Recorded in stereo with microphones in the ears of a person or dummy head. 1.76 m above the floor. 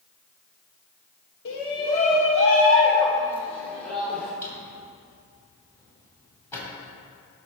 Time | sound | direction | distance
1.4 | a shout | 65° left (ahead or behind) | 1.1 m
4.4 | a drawer | 20° left (ahead or behind) | 3.5 m